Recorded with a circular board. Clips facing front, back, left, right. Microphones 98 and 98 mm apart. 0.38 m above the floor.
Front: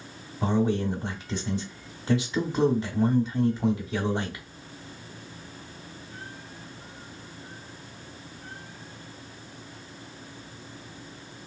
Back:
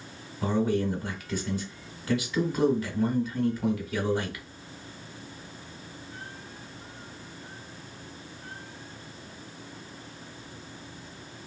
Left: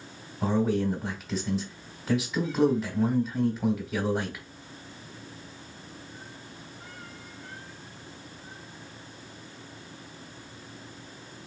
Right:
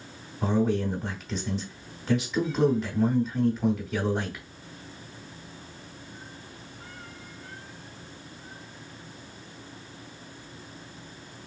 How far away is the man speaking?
About 1.0 m.